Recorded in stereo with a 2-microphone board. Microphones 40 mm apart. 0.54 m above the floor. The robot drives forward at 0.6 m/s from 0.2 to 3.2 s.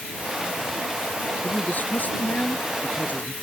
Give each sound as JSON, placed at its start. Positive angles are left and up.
{"t": 1.4, "sound": "a man speaking", "side_deg": 45}